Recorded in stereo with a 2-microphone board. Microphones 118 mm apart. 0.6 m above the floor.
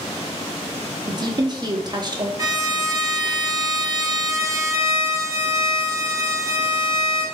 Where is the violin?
30° right (ahead or behind), 1.1 m.